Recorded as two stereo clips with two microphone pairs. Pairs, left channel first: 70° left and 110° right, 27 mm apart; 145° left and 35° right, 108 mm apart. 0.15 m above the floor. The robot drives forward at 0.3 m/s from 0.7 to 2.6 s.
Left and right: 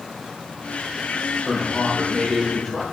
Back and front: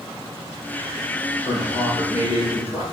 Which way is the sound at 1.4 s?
155° left.